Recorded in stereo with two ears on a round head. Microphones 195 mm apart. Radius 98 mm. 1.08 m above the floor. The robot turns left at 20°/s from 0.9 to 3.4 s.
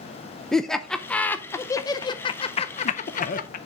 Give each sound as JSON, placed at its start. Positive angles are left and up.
{"t": 0.5, "sound": "laughter", "side_deg": 5, "distance_m": 0.5}